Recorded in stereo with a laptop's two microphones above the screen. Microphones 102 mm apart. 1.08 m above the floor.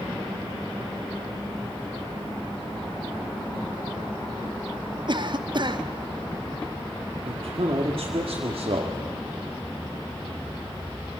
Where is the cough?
50° right (ahead or behind), 1.3 m.